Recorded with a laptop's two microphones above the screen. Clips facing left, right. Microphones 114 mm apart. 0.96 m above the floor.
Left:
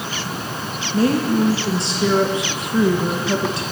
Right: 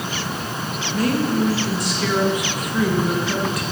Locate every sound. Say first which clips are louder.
0.9 s a woman speaking: left 3 dB; 30° left (ahead or behind), 0.9 m